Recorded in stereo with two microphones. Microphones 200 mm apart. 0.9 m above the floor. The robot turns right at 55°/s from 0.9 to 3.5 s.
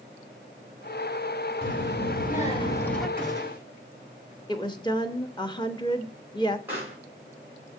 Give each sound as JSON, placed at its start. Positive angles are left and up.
{"t": 1.6, "sound": "a child speaking", "azimuth_deg": 100, "distance_m": 1.3}
{"t": 3.2, "sound": "a gunshot", "side_deg": 25, "distance_m": 3.5}
{"t": 4.5, "sound": "a woman speaking", "side_deg": 20, "distance_m": 0.9}
{"t": 6.7, "sound": "a pop", "side_deg": -10, "distance_m": 5.0}